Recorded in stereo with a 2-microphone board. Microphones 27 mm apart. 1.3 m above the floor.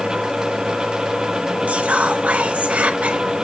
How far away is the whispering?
About 1.2 m.